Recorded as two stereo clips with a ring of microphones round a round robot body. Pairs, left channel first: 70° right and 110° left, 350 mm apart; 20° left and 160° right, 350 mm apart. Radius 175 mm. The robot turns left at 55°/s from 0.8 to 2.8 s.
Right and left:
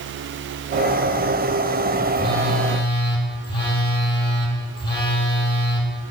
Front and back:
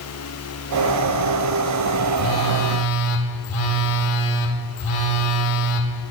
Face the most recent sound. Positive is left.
turn(degrees=10)